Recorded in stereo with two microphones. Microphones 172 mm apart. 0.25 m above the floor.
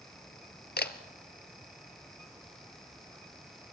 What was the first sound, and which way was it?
A camera shutter, 85° left.